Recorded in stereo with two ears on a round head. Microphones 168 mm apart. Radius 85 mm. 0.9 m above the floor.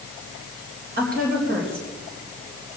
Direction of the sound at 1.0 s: 50° right (ahead or behind).